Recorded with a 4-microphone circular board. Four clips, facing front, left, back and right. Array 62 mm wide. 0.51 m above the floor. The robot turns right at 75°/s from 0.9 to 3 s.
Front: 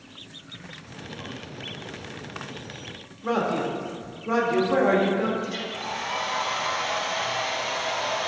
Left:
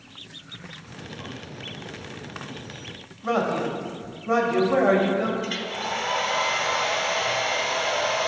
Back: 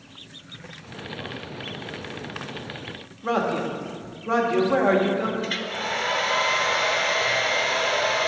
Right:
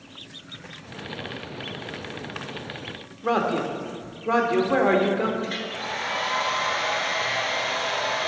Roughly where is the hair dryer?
Behind.